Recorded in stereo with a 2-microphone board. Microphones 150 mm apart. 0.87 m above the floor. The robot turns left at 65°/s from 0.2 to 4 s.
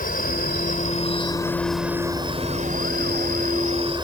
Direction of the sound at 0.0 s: 100° left.